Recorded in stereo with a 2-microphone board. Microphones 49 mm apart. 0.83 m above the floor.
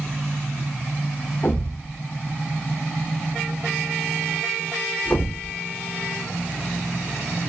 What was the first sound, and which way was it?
A thud, 30° left (ahead or behind).